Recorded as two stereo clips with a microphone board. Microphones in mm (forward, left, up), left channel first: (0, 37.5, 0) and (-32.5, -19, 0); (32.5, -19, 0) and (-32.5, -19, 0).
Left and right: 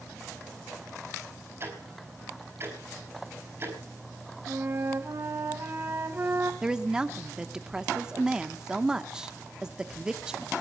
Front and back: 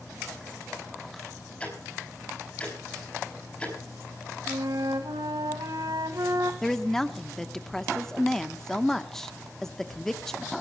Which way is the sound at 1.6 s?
70° right.